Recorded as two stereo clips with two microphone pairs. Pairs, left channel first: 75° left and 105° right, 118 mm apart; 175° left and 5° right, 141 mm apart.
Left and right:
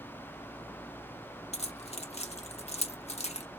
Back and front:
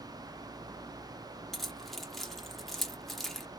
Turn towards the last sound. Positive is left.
turn(degrees=85)